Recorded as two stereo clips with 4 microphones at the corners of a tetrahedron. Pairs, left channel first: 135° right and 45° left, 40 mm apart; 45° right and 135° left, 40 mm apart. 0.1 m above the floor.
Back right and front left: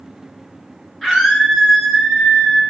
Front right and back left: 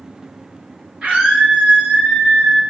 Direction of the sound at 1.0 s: 150° left.